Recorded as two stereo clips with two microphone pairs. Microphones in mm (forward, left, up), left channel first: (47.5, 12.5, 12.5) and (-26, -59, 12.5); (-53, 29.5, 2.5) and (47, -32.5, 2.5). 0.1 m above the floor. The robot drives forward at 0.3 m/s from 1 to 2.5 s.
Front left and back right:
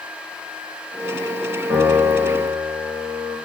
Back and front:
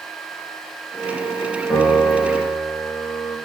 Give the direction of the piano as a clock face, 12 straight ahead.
4 o'clock.